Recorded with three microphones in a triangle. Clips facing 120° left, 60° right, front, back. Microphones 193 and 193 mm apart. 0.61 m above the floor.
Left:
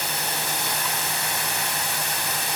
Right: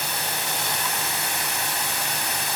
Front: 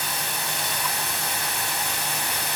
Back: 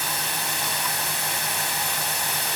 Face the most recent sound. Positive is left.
No sound to turn to.